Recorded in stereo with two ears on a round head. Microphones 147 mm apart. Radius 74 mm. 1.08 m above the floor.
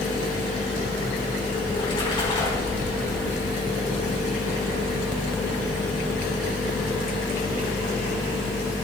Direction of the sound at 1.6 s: 30° left (ahead or behind).